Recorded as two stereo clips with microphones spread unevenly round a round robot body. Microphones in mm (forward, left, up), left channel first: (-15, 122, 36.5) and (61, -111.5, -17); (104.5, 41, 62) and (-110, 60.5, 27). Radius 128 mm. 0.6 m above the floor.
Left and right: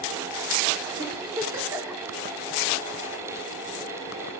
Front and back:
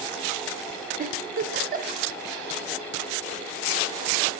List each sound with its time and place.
1.0 s a giggle: 145° right, 0.9 m